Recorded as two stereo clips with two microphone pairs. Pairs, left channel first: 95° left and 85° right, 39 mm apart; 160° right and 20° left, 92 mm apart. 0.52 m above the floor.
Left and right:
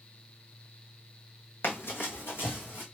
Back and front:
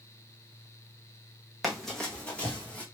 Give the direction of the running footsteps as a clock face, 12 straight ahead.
8 o'clock.